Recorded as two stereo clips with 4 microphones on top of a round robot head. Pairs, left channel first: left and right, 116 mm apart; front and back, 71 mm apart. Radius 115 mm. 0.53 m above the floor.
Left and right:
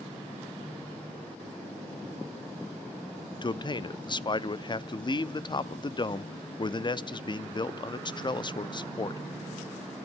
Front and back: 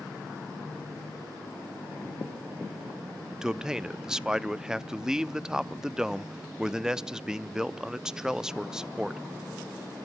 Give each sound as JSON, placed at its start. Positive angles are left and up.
{"t": 3.4, "sound": "a man speaking", "azimuth_deg": 100, "distance_m": 0.7}